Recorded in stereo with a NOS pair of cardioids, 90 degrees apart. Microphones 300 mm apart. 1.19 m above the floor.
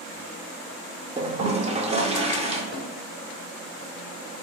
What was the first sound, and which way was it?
A toilet flushing, 20° right.